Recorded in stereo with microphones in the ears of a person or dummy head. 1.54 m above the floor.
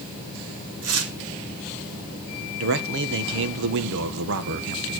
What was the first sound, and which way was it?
Tearing paper, 75° right (ahead or behind).